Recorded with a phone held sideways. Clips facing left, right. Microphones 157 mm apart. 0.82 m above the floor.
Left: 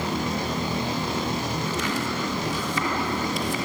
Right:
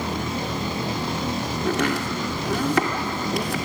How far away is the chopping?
About 2.5 m.